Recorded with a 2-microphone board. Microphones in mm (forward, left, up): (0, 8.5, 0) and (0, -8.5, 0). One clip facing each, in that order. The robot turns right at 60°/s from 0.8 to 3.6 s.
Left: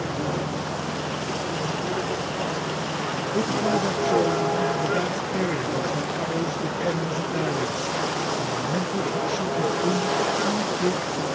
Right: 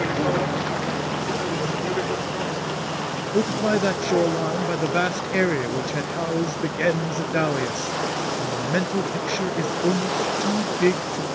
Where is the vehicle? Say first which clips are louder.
Right 5 dB; 85° right; by 11.3 s 55° left (ahead or behind).